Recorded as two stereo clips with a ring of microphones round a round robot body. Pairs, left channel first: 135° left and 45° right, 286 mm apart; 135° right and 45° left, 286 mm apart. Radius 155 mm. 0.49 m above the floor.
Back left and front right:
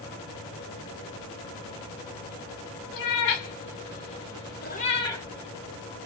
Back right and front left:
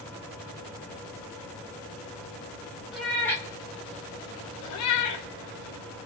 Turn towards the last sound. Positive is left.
turn(degrees=-140)